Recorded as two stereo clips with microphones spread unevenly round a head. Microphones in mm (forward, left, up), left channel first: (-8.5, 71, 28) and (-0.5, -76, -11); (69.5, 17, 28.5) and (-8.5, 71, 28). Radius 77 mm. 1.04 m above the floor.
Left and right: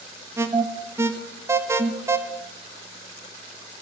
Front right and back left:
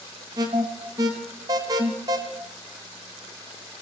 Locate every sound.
0.4 s an alarm: 155° right, 0.9 m